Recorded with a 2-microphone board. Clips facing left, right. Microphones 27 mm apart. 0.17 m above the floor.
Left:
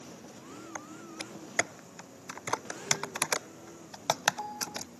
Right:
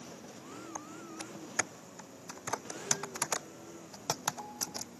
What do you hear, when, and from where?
0.8 s typing on a keyboard: 80° left